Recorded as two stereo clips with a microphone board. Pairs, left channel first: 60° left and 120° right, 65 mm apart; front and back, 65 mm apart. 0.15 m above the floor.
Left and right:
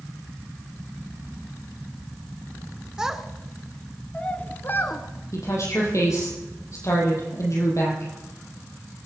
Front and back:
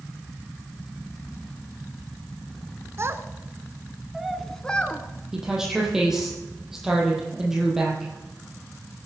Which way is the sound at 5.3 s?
95° left.